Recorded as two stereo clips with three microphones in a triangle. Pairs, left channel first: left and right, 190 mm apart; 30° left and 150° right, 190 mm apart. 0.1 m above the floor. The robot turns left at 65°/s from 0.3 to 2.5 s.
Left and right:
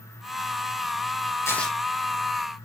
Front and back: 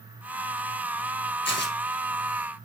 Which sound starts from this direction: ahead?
Tearing paper, at 1.4 s.